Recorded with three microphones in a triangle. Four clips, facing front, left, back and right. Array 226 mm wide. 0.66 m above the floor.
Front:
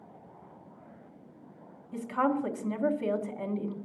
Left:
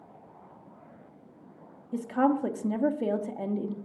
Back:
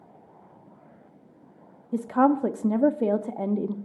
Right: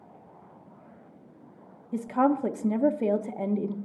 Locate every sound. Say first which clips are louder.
1.9 s a woman speaking: right 1 dB, back 7 dB; 170° right, 0.7 m